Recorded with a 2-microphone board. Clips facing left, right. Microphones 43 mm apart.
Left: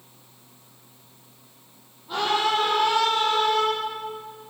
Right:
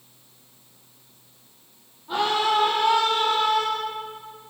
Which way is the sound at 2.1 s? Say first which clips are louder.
Right 1 dB; 10° right (ahead or behind).